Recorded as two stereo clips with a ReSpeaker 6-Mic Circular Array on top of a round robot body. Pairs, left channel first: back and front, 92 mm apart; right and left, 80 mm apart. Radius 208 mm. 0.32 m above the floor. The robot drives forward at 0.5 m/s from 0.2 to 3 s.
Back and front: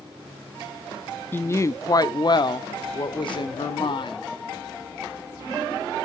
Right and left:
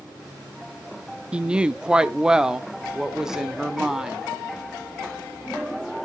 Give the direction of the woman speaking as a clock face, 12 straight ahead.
7 o'clock.